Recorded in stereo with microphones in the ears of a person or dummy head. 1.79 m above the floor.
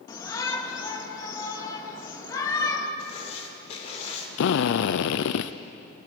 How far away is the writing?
About 3 m.